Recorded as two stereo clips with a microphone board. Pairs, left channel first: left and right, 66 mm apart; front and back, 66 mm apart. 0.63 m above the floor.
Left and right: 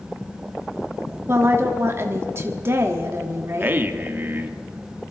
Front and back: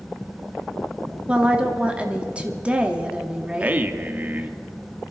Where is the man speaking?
130° right, 1.1 m.